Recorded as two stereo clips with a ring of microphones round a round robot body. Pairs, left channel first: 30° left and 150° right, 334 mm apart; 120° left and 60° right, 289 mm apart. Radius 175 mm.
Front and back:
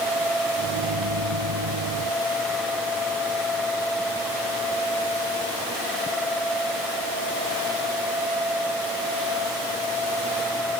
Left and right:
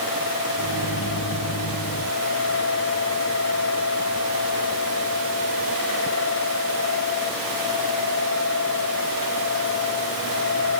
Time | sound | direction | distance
0.6 | a microwave | 175° left | ?